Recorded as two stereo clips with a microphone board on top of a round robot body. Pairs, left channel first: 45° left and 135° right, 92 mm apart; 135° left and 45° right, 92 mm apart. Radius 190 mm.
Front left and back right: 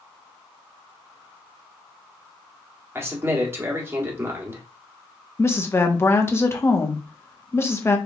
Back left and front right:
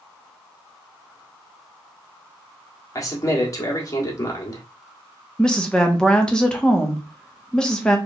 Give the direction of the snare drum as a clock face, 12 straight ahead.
No snare drum in this recording.